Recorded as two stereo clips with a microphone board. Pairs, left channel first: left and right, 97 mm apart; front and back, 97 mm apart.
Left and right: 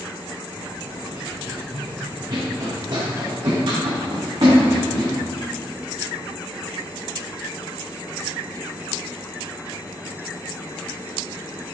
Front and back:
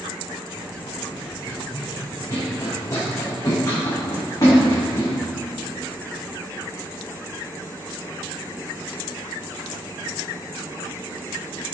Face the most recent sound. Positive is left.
turn(degrees=-55)